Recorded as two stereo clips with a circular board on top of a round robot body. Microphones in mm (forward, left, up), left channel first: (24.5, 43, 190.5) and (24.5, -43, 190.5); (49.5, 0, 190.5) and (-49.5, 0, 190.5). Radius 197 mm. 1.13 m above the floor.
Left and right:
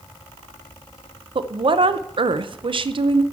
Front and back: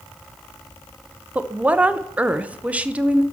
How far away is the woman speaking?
About 0.6 m.